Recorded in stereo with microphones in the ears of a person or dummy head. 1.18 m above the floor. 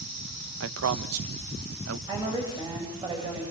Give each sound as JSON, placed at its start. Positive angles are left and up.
{"t": 0.6, "sound": "a man speaking", "side_deg": -80, "distance_m": 1.1}
{"t": 2.1, "sound": "a woman speaking", "side_deg": -25, "distance_m": 7.5}